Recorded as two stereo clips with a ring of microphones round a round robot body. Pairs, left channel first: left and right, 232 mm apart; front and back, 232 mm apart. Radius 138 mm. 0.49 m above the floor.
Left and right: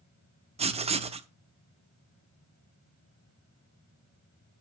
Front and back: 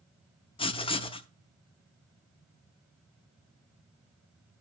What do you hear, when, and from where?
0.6 s writing: 50° right, 0.6 m